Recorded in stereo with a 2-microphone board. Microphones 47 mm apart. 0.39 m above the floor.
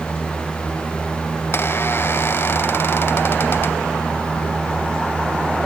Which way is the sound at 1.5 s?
55° left (ahead or behind).